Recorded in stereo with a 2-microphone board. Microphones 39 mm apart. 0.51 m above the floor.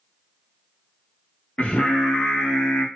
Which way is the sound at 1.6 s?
30° left (ahead or behind).